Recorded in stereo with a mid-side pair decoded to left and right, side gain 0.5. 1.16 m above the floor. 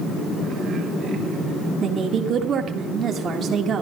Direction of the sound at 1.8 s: 50° right.